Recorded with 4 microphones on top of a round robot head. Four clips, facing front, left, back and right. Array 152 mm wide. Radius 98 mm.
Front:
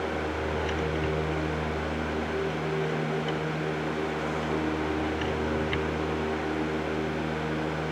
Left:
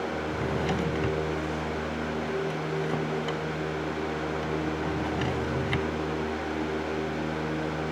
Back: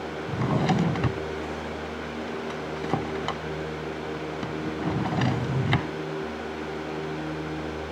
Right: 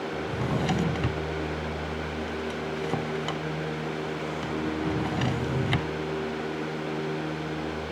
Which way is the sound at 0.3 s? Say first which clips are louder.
Right 2 dB, back 4 dB; 175° right.